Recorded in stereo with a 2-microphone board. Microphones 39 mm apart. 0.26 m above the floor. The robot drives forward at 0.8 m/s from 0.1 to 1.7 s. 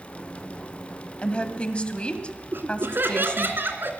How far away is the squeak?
I don't hear a squeak.